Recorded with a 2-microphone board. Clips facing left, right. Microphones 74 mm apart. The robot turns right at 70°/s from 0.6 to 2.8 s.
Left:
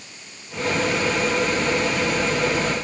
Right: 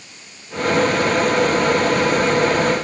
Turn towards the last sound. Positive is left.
No sound to turn to.